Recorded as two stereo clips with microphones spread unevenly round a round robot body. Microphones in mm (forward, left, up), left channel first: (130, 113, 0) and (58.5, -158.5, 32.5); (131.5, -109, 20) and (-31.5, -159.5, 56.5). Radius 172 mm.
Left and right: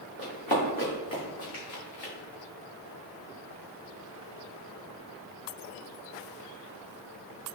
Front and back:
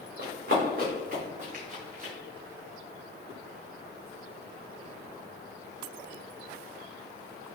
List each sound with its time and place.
0.2 s running footsteps: 155° left, 1.7 m; by 2.1 s 115° left, 1.9 m